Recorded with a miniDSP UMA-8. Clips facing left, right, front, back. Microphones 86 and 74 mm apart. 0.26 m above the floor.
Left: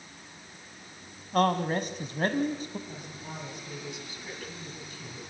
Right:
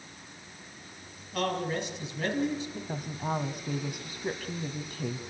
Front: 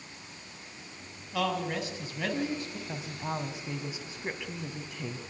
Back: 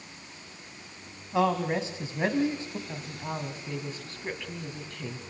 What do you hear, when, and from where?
1.3 s a man speaking: 120° left, 2.5 m
2.9 s a woman speaking: 80° right, 1.9 m